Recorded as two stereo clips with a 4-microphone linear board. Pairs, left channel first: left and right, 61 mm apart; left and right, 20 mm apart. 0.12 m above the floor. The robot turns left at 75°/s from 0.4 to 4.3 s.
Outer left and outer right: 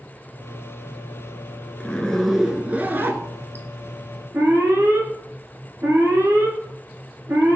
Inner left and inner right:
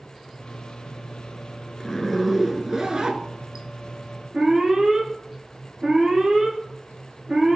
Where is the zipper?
35° left, 0.5 m; by 3.6 s 105° right, 0.5 m.